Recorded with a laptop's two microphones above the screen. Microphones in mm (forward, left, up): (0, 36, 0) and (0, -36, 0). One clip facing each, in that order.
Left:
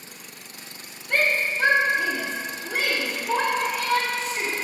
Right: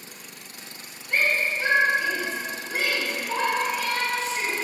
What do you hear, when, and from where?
1.1 s a shout: 70° left (ahead or behind), 2.5 m; by 4.5 s 65° left (ahead or behind), 4.5 m